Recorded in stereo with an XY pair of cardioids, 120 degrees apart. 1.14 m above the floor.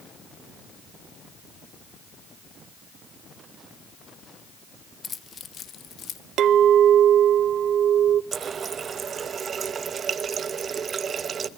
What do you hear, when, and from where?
5.0 s keys jangling: 25° left, 0.9 m; by 6.2 s 55° left, 1.7 m
6.4 s a clink: 60° right, 0.9 m
8.3 s a running tap: 40° right, 0.8 m